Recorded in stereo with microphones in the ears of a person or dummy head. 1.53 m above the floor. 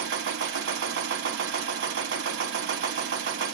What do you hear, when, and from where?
0.0 s a machine running: 65° right (ahead or behind), 0.9 m